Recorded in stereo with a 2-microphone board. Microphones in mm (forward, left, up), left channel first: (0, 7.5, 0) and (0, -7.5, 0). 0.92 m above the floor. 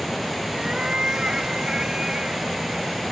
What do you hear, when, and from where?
0.5 s a cat meowing: 60° right (ahead or behind); by 3.0 s 55° right (ahead or behind)